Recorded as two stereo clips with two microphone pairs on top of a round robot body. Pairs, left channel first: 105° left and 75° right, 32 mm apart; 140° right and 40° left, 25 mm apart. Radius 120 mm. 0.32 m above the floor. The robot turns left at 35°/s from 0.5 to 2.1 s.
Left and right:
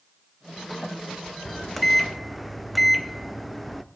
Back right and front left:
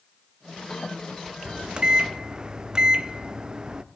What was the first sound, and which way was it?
A microwave, 15° left.